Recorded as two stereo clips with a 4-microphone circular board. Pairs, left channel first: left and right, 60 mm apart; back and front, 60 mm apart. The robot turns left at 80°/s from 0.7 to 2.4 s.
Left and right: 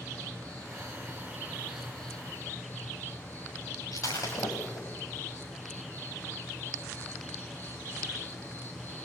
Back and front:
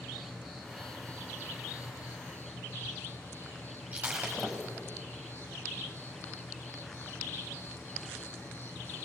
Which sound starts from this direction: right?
An insect, at 0.0 s.